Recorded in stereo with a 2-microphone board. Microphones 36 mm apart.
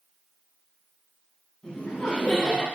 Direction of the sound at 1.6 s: 15° left (ahead or behind).